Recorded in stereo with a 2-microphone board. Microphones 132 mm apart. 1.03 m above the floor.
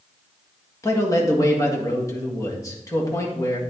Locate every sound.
0.8 s a man speaking: 25° left (ahead or behind), 1.7 m